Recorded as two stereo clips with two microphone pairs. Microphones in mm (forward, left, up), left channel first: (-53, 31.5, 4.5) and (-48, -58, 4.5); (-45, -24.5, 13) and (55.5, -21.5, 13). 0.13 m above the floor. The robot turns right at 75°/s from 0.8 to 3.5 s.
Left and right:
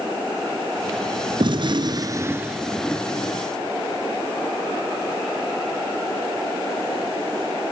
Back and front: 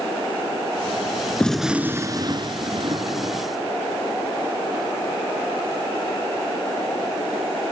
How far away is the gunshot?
About 0.9 m.